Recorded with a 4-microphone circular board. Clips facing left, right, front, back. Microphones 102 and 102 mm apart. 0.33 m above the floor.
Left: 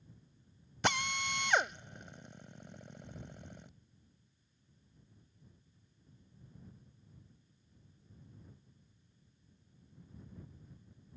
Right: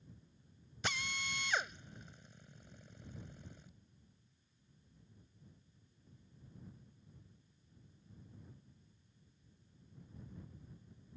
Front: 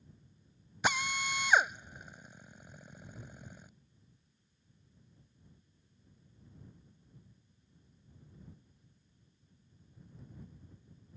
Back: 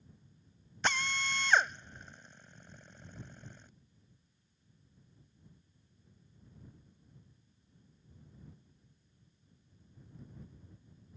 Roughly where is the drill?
Left.